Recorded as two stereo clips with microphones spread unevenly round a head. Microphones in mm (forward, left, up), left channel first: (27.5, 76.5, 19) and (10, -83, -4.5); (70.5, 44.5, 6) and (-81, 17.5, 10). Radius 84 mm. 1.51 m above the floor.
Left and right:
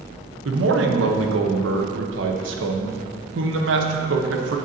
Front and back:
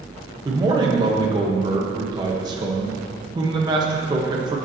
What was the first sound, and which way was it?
A man speaking, 100° right.